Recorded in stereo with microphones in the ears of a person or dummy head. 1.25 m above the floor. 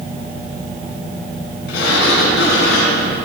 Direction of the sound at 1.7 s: 75° left (ahead or behind).